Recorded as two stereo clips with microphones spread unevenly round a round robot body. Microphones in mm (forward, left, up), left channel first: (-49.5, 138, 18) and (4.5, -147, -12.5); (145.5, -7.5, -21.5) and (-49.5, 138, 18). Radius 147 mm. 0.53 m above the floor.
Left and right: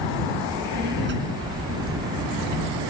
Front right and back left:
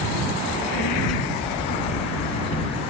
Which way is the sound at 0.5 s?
20° right.